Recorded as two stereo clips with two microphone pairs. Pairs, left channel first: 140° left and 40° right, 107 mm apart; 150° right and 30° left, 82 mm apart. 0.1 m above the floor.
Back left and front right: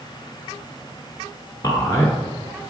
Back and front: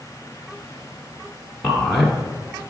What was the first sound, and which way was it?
A man speaking, 120° left.